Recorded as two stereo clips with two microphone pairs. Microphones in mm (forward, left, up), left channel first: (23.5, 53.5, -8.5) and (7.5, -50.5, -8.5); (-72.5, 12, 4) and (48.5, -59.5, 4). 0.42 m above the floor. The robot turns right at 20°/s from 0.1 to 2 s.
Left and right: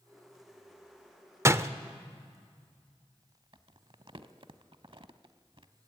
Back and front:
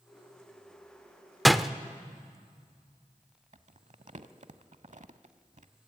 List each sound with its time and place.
1.4 s a door slam: 120° right, 0.5 m; by 1.7 s 115° right, 0.5 m
3.5 s crumpling: 65° right, 0.7 m